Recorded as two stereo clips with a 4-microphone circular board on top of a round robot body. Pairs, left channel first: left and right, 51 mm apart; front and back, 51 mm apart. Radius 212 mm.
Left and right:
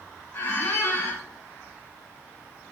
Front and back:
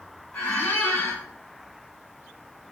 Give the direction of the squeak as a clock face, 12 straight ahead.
10 o'clock.